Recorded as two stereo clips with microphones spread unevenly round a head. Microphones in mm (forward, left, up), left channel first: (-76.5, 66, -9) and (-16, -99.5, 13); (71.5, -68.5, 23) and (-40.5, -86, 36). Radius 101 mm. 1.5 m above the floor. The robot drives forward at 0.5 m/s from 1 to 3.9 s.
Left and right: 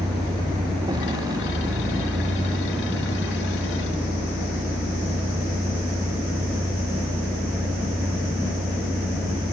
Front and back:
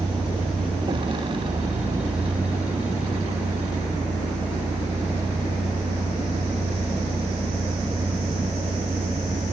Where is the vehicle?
135° right; by 9.5 s 145° right.